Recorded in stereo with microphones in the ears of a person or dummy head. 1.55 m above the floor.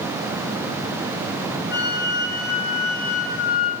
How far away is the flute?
About 4 m.